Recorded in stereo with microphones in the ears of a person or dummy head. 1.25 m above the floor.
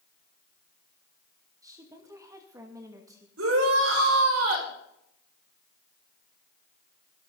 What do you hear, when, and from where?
1.6 s a woman speaking: 25° right (ahead or behind), 2.5 m
3.4 s a shout: 85° right, 6 m